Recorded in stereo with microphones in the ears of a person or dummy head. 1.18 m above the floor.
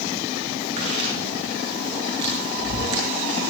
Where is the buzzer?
No buzzer in this recording.